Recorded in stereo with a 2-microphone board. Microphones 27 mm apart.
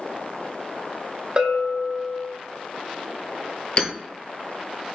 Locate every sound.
1.4 s a bell: 35° right (ahead or behind), 0.5 m
3.8 s hammering: 40° left (ahead or behind), 0.7 m